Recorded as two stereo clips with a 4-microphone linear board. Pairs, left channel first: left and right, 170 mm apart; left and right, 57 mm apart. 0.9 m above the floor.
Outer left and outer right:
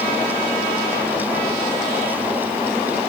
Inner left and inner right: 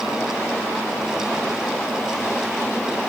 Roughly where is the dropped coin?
I don't hear a dropped coin.